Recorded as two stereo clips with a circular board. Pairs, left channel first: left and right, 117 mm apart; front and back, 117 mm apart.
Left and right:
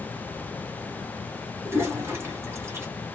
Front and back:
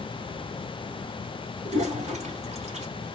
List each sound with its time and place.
1.6 s a toilet flushing: 160° right, 1.2 m